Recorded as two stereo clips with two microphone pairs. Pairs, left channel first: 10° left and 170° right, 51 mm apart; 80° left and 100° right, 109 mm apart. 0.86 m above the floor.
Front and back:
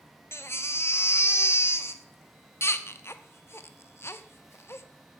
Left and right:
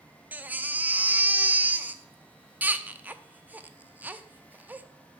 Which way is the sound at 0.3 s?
25° right.